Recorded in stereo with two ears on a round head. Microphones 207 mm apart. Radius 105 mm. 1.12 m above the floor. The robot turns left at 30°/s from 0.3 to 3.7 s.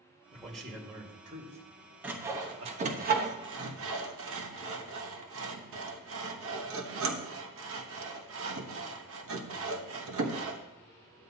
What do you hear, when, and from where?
0.3 s a man speaking: 10° left (ahead or behind), 1.7 m; by 3.0 s 70° right (ahead or behind), 1.7 m
2.0 s sawing: 5° right (ahead or behind), 1.0 m; by 10.6 s 55° right (ahead or behind), 1.0 m